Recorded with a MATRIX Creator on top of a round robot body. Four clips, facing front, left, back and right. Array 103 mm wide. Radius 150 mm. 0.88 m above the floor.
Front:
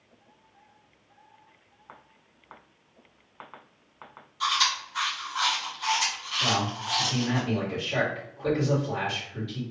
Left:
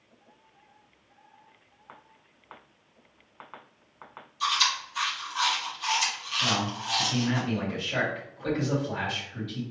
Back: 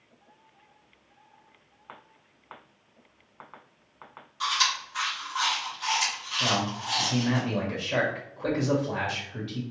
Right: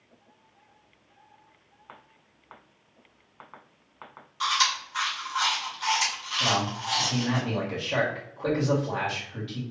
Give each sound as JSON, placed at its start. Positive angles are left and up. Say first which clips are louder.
{"t": 4.4, "sound": "chewing", "louder": "right 2 dB, front 1 dB", "azimuth_deg": -105, "distance_m": 1.9}
{"t": 6.4, "sound": "a man speaking", "louder": "right 2 dB, even", "azimuth_deg": -135, "distance_m": 2.0}